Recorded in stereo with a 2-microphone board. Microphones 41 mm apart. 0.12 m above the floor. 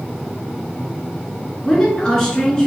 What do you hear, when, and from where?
1.6 s a woman speaking: 20° left (ahead or behind), 1.2 m